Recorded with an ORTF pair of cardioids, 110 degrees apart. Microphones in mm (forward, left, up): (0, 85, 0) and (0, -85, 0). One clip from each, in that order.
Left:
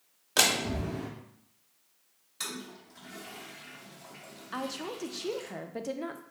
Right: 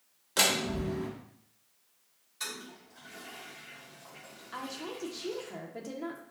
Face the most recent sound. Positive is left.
turn(degrees=25)